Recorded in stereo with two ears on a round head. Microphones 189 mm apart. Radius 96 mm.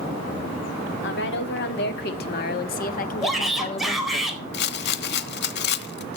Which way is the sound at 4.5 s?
55° left (ahead or behind).